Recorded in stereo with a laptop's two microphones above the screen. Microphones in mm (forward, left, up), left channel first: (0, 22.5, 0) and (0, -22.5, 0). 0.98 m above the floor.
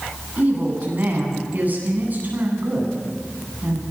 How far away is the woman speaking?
About 9 m.